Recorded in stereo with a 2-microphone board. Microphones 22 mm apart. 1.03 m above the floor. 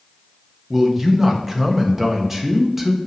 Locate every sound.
0.7 s a man speaking: 20° right (ahead or behind), 1.3 m